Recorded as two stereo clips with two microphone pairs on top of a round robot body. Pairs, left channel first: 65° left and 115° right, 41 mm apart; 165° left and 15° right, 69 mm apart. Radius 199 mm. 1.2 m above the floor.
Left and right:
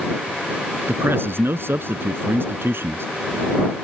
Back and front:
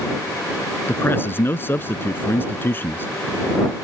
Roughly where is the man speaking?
Behind right.